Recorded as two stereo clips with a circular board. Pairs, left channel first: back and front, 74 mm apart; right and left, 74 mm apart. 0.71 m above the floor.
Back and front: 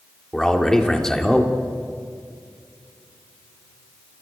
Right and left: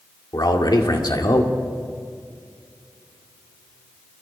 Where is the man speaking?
100° right, 2 m.